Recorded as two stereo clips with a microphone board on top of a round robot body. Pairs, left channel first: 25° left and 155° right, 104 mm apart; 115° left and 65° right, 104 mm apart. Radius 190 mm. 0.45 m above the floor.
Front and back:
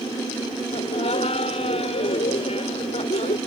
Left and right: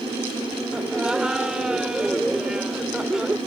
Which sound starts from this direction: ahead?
Laughter, at 0.7 s.